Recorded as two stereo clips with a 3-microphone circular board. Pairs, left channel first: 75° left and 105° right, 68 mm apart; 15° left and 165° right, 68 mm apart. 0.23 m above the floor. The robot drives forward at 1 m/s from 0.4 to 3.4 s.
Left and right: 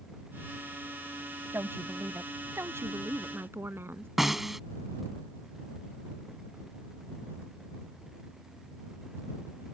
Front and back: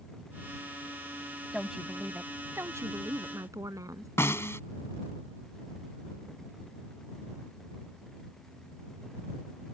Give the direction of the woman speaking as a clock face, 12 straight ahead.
3 o'clock.